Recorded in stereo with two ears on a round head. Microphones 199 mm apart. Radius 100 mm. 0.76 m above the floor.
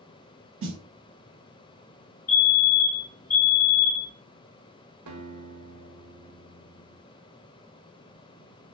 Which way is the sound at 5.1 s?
80° right.